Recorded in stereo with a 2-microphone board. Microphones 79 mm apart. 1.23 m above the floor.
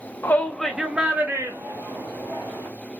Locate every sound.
0.2 s a shout: 25° left (ahead or behind), 0.6 m; by 2.7 s 45° right (ahead or behind), 1.5 m